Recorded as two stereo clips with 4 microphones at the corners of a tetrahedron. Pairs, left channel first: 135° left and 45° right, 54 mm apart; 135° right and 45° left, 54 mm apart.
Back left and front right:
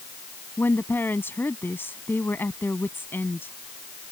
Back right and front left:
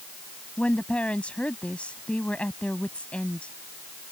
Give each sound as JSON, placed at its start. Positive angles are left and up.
{"t": 0.6, "sound": "a woman speaking", "azimuth_deg": 165}